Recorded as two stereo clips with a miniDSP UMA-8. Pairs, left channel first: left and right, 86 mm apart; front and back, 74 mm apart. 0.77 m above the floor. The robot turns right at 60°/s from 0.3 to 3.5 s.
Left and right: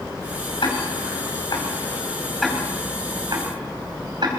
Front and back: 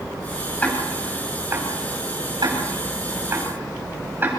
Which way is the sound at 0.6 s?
70° left.